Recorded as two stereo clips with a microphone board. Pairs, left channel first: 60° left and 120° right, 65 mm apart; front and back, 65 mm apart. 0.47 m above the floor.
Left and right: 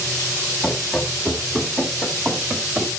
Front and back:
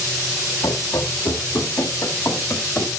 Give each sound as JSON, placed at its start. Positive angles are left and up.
{"t": 0.6, "sound": "running footsteps", "azimuth_deg": -25, "distance_m": 1.9}